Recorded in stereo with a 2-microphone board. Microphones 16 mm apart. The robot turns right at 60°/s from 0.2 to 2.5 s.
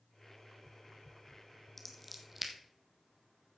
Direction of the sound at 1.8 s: 20° left (ahead or behind).